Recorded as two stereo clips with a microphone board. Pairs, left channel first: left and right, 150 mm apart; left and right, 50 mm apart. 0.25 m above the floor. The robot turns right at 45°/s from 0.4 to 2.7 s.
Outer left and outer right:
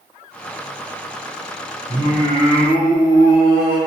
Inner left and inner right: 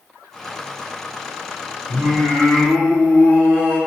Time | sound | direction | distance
1.9 | singing | 25° right (ahead or behind) | 1.7 m